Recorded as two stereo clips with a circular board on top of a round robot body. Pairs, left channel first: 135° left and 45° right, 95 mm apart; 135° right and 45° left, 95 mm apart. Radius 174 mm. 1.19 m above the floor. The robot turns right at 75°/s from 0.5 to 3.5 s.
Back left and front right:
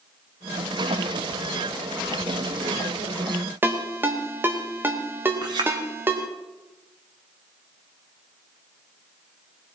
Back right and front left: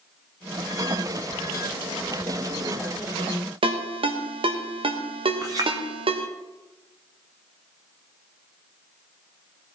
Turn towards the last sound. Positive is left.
turn(degrees=-5)